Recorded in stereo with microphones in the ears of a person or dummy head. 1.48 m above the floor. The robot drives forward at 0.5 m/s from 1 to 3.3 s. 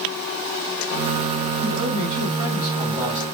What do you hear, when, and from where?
1.6 s a man speaking: 30° right (ahead or behind), 2 m; by 3.2 s 20° right (ahead or behind), 3 m